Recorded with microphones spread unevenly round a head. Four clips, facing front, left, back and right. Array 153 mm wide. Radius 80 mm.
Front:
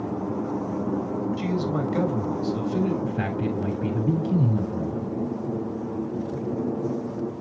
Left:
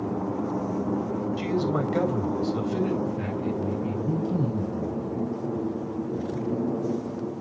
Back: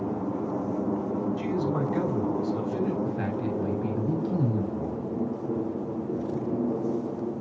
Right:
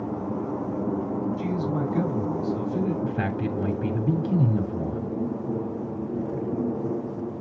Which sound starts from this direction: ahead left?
A man speaking, at 1.4 s.